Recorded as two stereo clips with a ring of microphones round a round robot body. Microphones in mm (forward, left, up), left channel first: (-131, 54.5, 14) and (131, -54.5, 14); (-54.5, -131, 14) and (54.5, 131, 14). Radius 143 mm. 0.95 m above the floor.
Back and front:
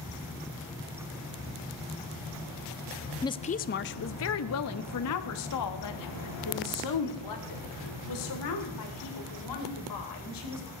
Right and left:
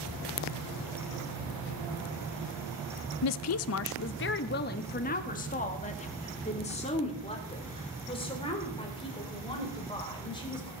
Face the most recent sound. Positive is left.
turn(degrees=175)